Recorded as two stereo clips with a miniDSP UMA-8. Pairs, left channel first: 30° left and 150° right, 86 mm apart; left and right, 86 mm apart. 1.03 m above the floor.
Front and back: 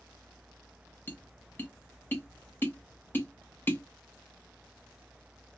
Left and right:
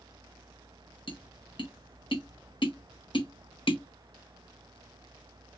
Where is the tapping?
95° left, 0.7 m.